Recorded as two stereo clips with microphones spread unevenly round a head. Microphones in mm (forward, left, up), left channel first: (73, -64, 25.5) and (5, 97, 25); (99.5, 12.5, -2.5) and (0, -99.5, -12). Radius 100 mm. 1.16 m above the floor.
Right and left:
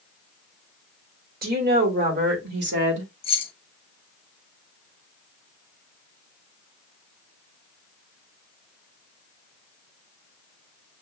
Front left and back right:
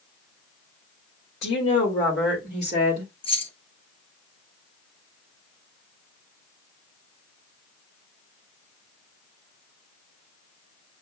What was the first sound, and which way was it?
A woman speaking, 80° left.